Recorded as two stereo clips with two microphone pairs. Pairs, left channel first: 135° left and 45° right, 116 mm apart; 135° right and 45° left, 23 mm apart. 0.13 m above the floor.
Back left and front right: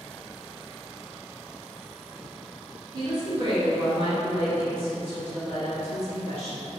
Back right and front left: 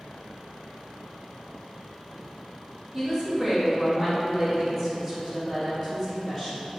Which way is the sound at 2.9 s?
50° right.